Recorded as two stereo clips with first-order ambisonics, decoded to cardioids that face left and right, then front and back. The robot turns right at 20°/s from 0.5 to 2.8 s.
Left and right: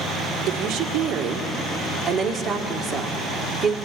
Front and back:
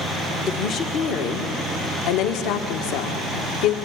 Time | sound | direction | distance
0.5 | a woman speaking | 50° right | 1.9 m